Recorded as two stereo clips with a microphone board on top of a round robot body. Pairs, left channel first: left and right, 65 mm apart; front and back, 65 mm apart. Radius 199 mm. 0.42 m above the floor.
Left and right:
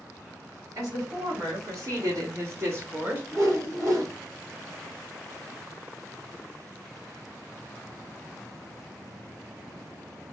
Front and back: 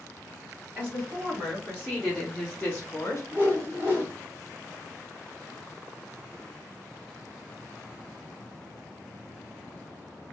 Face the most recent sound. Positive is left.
turn(degrees=-120)